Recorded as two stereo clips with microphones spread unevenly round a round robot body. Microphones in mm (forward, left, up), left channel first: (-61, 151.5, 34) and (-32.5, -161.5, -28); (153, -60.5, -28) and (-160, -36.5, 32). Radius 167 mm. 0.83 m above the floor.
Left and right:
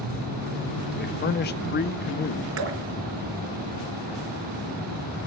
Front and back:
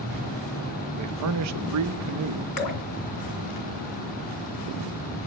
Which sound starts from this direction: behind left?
A man speaking, at 0.9 s.